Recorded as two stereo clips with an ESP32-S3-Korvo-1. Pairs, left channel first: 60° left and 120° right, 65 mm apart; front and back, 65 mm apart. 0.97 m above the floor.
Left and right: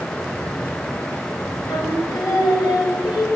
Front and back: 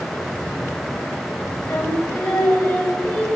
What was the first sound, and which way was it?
Singing, 75° left.